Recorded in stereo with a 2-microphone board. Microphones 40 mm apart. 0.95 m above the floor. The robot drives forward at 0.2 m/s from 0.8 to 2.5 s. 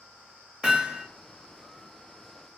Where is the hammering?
25° right (ahead or behind), 0.7 m.